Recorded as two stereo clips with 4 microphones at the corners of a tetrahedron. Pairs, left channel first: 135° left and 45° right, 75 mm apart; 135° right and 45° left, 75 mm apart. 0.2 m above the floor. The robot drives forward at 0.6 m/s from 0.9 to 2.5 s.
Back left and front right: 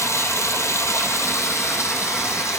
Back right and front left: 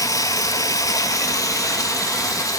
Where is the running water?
175° right, 2.0 m.